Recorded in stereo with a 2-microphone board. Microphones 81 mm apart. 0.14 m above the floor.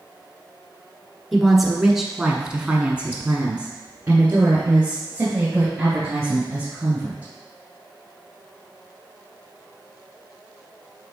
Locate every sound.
1.3 s a woman speaking: centre (ahead or behind), 1.5 m; by 7.3 s 20° right (ahead or behind), 3.5 m